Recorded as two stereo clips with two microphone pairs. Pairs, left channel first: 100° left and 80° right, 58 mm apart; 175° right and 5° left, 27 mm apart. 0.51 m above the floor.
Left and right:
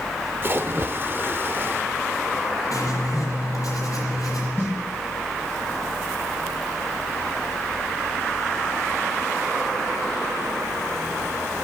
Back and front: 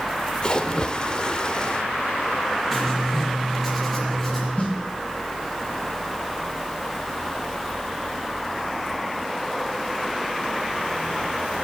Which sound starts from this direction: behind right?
A splash, at 0.4 s.